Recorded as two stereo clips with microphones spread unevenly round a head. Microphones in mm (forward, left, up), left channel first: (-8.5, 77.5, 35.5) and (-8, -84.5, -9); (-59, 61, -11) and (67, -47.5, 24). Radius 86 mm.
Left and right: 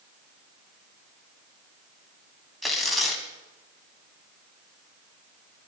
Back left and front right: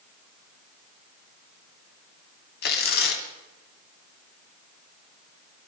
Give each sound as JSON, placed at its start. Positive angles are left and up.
{"t": 2.6, "sound": "tearing paper", "azimuth_deg": 165, "distance_m": 2.5}